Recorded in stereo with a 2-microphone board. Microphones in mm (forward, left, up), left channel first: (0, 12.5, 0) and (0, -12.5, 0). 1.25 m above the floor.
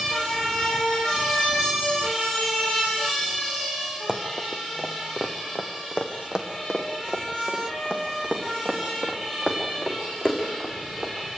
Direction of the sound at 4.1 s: 40° right (ahead or behind).